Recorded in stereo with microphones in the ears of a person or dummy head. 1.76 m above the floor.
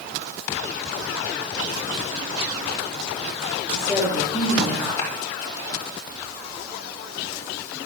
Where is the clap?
15° left (ahead or behind), 5 m.